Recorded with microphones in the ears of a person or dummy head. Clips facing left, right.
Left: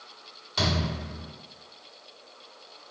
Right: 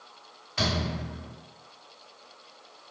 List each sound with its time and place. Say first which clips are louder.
0.6 s a thud: left 1 dB; 60° left (ahead or behind), 1.7 m